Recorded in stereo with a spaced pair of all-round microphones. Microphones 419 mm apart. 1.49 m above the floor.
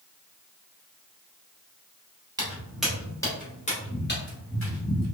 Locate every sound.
2.4 s footsteps: 10° right (ahead or behind), 1.5 m; by 5.0 s 40° left (ahead or behind), 1.8 m